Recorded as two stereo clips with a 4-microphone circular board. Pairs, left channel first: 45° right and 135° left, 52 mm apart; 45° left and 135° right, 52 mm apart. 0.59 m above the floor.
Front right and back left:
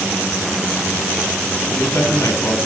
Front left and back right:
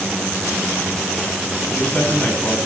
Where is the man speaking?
20° right, 5.5 m.